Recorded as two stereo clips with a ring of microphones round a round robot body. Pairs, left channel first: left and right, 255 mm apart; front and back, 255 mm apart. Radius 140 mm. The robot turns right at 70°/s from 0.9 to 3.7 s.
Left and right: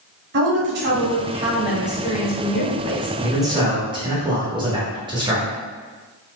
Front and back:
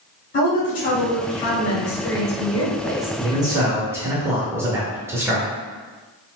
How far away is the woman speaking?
About 1.6 m.